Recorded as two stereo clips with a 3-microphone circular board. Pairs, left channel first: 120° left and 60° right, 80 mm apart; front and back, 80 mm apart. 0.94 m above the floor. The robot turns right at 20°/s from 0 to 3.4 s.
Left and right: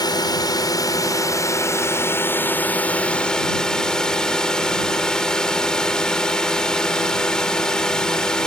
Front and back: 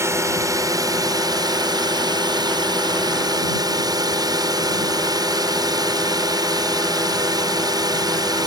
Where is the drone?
135° left; by 8.5 s 160° right.